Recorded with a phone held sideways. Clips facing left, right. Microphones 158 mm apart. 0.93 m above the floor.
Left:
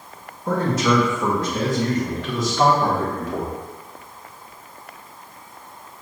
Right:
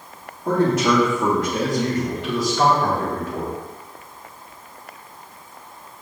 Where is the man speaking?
70° right (ahead or behind), 1.7 m; by 3.5 s 35° left (ahead or behind), 1.2 m.